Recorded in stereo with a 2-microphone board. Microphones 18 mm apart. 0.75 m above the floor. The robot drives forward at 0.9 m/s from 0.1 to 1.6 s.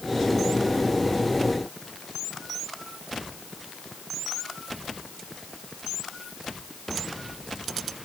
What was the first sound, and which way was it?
Only background noise.